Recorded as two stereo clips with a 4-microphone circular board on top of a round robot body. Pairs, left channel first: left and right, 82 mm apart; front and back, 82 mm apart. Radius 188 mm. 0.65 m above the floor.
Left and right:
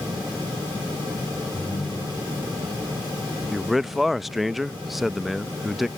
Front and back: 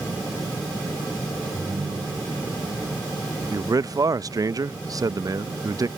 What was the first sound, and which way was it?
A ringtone, 140° left.